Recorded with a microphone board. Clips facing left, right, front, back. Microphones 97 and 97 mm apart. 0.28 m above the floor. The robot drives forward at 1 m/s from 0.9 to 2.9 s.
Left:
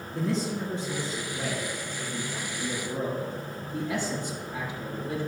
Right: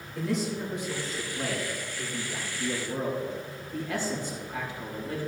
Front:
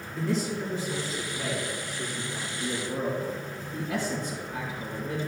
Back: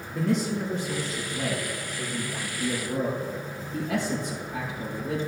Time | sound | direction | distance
0.1 | a man speaking | 150° left | 2.5 m